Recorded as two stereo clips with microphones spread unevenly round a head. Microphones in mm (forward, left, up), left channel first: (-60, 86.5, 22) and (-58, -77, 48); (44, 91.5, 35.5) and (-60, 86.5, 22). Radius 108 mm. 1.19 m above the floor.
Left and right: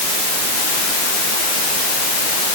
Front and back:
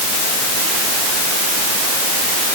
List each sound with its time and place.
Only background noise.